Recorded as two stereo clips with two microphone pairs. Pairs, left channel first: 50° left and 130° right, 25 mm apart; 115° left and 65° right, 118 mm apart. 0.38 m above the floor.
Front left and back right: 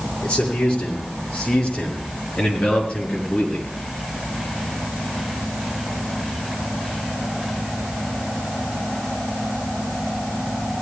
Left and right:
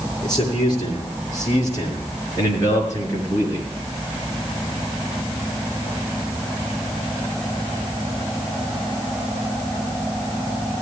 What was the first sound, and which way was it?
A man speaking, 60° left.